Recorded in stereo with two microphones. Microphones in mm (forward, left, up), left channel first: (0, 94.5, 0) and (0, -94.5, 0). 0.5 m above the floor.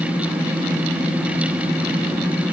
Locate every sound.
Only background noise.